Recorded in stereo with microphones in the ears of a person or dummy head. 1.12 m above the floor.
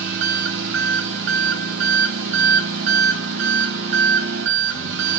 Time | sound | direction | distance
0.0 | an engine running | 65° right (ahead or behind) | 2.5 m